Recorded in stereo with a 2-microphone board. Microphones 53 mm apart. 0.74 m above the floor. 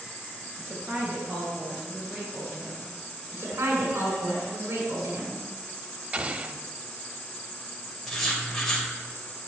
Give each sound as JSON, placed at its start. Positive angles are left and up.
{"t": 0.6, "sound": "a woman speaking", "side_deg": -45, "distance_m": 3.5}
{"t": 3.3, "sound": "a woman speaking", "side_deg": -75, "distance_m": 7.0}
{"t": 6.1, "sound": "an explosion", "side_deg": -30, "distance_m": 1.0}
{"t": 8.1, "sound": "writing", "side_deg": 5, "distance_m": 3.0}